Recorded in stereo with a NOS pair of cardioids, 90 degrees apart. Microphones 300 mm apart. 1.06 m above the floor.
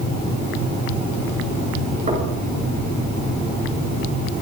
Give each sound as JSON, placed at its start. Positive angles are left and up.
{"t": 2.1, "sound": "knocking", "azimuth_deg": -25, "distance_m": 7.5}